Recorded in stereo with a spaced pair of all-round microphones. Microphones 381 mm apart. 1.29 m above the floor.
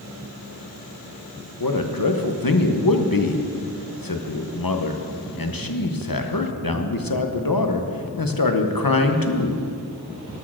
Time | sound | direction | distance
1.6 | a man speaking | 60° left (ahead or behind) | 0.9 m